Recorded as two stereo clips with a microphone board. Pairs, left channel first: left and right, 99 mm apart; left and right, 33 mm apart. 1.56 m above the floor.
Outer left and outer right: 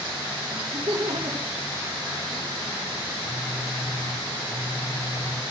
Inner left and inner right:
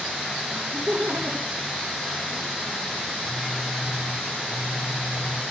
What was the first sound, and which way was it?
Laughter, 75° right (ahead or behind).